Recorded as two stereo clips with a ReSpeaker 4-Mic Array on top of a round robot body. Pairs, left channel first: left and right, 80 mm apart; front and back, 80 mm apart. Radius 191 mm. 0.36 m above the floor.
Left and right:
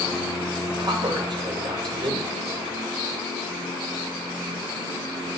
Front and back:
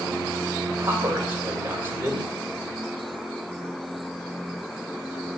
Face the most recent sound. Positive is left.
turn(degrees=-115)